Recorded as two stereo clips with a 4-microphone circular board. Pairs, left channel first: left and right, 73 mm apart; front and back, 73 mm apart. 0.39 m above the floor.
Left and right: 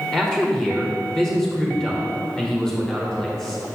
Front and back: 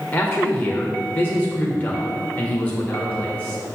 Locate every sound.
0.1 s a man speaking: 25° left, 1.2 m